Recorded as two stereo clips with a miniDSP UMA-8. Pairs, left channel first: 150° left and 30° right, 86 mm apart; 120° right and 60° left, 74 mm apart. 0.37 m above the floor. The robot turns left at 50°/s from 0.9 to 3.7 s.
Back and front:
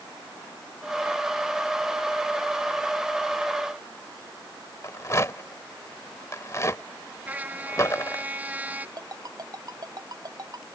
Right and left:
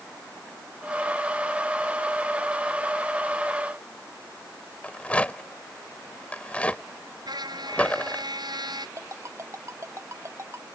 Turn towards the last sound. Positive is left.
turn(degrees=10)